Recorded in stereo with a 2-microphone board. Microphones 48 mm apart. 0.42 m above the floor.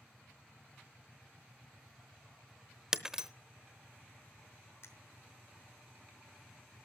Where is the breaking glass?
10° right (ahead or behind), 0.8 m.